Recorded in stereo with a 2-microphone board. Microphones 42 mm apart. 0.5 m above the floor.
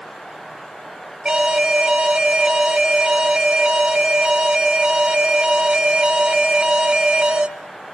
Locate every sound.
1.2 s an alarm: 20° right (ahead or behind), 1.8 m